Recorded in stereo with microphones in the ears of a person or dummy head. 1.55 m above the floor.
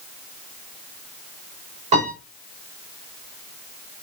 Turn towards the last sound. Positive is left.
turn(degrees=-30)  # may be behind; listen again after turning